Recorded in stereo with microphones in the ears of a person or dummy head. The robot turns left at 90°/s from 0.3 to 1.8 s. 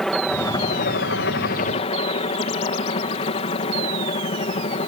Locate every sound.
0.0 s a helicopter: 175° left; by 4.9 s 40° left